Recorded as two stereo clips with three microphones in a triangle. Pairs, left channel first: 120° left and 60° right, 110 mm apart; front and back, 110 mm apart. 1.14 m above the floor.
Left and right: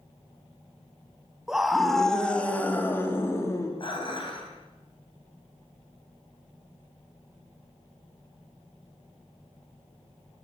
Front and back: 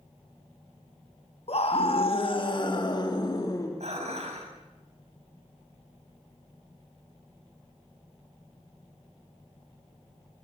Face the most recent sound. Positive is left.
turn(degrees=165)